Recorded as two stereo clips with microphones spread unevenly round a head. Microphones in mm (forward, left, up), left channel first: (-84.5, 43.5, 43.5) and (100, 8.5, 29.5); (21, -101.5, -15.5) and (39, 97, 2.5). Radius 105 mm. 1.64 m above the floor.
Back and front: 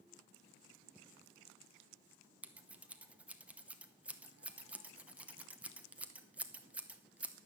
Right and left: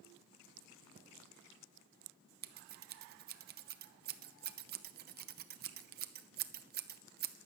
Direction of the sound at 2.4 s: 75° left.